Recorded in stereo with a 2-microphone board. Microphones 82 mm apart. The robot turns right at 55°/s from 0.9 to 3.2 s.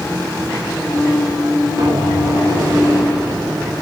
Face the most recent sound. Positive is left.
turn(degrees=-10)